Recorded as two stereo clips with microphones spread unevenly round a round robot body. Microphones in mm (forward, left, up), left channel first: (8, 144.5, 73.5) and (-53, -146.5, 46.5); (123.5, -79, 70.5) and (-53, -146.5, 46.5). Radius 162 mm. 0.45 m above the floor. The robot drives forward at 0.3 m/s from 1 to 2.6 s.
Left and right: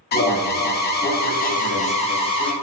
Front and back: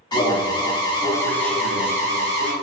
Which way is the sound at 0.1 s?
75° left.